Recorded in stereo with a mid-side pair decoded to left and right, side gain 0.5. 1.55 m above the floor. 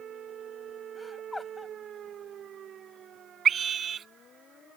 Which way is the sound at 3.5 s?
45° right.